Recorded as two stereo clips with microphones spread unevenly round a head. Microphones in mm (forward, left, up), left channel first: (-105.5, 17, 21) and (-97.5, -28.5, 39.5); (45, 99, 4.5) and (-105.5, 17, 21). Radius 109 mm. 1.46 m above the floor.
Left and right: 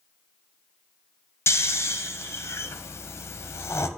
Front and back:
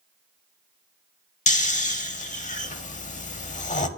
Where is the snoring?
80° left, 0.7 m.